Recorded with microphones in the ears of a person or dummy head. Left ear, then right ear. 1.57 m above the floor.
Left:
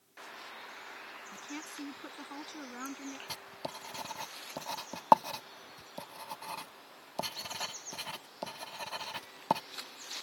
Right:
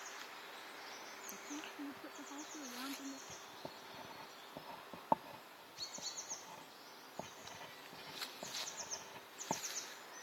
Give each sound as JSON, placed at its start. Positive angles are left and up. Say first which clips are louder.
{"t": 1.3, "sound": "a woman speaking", "louder": "left 5 dB", "side_deg": 80}
{"t": 3.3, "sound": "writing", "louder": "left 8 dB", "side_deg": 60}